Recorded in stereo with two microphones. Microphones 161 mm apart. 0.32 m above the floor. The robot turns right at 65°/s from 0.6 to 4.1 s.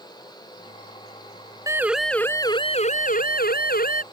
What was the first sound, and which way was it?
A siren, 20° right (ahead or behind).